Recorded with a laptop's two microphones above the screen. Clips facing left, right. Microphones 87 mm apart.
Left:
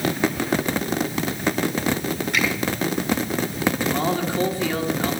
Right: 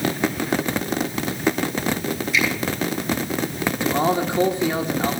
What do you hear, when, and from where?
2.3 s a finger snap: 60° left (ahead or behind), 7.5 m
3.8 s a man speaking: 20° right (ahead or behind), 2.5 m